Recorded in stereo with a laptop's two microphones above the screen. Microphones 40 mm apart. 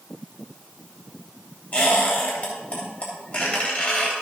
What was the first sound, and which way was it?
A squeak, 35° left (ahead or behind).